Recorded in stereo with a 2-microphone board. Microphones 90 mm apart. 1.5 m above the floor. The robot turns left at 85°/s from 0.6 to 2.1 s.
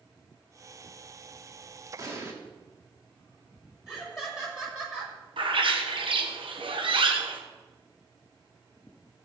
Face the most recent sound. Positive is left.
turn(degrees=-70)  # may be behind; listen again after turning